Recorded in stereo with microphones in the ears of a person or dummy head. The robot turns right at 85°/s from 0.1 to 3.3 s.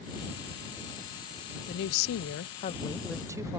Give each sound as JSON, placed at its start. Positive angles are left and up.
{"t": 1.7, "sound": "a woman speaking", "azimuth_deg": 55}